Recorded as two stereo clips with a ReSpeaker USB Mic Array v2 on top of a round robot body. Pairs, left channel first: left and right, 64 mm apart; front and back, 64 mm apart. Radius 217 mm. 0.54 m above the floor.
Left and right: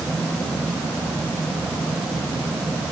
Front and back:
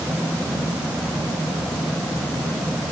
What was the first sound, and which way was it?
Only background noise.